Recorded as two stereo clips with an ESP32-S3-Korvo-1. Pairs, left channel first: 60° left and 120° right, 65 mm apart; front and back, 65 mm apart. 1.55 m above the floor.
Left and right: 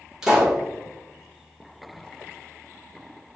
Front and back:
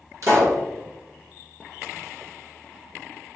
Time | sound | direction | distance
0.2 | a pop | 160° left | 1.2 m